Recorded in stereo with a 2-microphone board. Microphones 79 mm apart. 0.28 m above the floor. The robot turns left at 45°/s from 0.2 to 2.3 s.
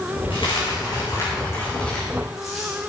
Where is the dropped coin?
85° left, 6.5 m; by 2.7 s centre (ahead or behind), 6.5 m.